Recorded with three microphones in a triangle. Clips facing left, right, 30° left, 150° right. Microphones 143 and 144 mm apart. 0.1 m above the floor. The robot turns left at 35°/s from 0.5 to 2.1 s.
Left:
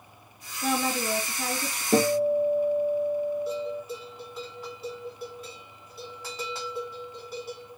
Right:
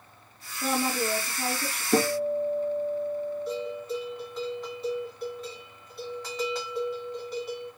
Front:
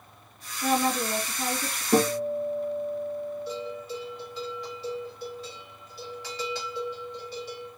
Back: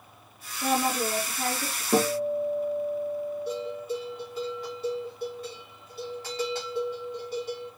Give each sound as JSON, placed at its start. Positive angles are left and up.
{"t": 0.6, "sound": "a woman speaking", "azimuth_deg": -105, "distance_m": 1.7}
{"t": 1.9, "sound": "a guitar", "azimuth_deg": 125, "distance_m": 1.8}
{"t": 3.5, "sound": "a bell", "azimuth_deg": 175, "distance_m": 4.0}